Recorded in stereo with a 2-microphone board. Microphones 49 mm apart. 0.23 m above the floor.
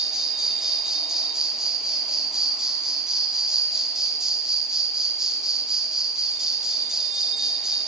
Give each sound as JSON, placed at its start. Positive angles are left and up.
{"t": 0.0, "sound": "an insect", "side_deg": -10, "distance_m": 1.0}